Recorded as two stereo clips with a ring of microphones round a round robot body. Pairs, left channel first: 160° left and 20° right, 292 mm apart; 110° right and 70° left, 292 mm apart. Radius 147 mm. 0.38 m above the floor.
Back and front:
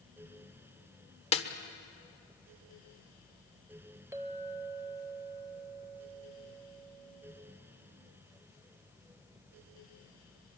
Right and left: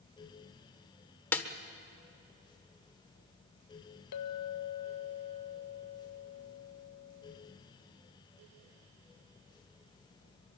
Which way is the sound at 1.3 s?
175° left.